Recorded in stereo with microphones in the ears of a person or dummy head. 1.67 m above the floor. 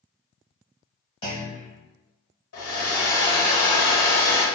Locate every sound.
1.2 s a clunk: 30° left (ahead or behind), 1.2 m
2.5 s a hair dryer: 80° left, 1.0 m